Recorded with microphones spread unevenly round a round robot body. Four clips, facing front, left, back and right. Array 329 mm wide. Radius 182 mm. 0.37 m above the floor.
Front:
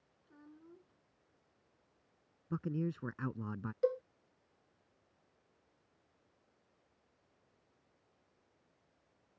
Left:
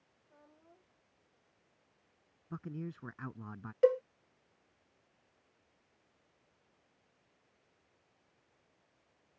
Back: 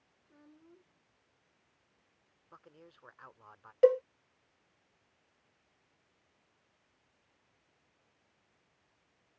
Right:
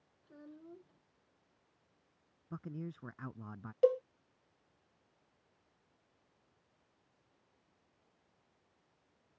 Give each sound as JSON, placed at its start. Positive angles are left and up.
{"t": 0.2, "sound": "a child speaking", "azimuth_deg": -80}
{"t": 2.5, "sound": "a man speaking", "azimuth_deg": 5}
{"t": 3.8, "sound": "a cowbell", "azimuth_deg": 170}